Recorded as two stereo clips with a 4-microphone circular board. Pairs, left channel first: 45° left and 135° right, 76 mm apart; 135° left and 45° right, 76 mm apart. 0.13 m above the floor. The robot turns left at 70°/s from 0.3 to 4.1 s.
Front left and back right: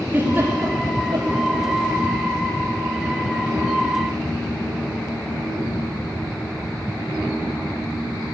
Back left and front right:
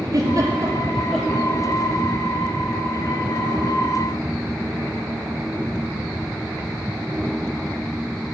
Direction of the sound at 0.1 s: 70° right.